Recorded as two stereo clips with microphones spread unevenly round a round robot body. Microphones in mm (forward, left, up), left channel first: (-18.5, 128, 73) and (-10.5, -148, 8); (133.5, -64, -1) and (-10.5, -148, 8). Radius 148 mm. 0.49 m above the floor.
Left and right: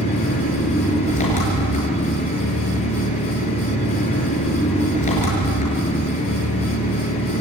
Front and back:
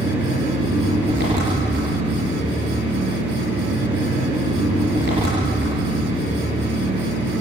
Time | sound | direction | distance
0.0 | an engine running | 155° left | 7 m